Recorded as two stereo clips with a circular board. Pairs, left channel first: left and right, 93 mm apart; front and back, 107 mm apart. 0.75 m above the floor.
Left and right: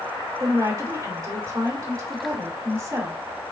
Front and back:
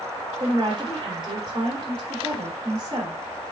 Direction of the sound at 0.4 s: 140° right.